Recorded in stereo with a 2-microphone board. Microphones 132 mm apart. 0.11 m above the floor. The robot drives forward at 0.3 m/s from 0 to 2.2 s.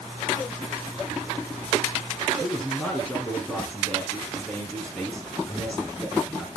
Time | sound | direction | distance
2.4 | a man speaking | 10° left (ahead or behind) | 4.5 m